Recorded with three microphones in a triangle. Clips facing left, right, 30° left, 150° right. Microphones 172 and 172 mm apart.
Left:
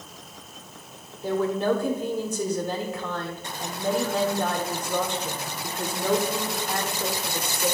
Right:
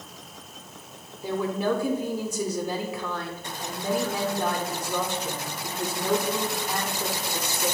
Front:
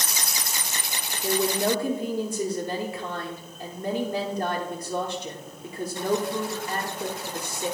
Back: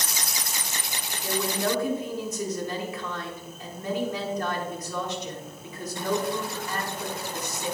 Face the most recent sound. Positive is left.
turn(degrees=-15)